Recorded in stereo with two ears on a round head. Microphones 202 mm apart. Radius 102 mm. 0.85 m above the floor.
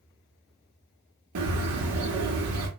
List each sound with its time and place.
1.4 s a bird: 65° right (ahead or behind), 0.8 m